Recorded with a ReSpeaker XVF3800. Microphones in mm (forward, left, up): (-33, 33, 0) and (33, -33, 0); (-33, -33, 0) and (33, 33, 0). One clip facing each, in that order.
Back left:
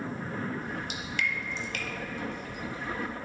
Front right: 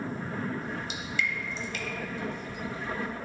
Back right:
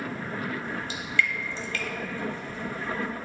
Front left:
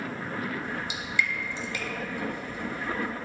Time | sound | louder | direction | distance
0.6 | dripping | even, even | 115° left | 0.8 m